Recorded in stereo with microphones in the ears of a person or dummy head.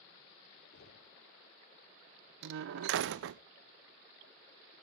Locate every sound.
0.7 s knocking: 60° left (ahead or behind), 3.5 m
2.4 s a door slam: 70° right (ahead or behind), 0.5 m